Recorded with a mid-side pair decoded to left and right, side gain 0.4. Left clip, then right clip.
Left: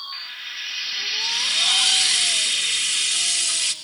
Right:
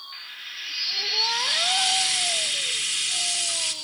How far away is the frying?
About 4.5 m.